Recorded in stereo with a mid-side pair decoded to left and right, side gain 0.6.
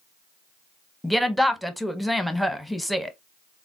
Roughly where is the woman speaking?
Ahead.